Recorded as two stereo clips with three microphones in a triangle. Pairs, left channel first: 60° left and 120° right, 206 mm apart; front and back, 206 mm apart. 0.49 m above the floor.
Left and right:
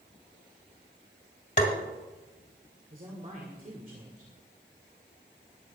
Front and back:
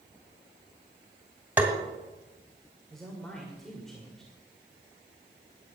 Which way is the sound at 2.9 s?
90° right.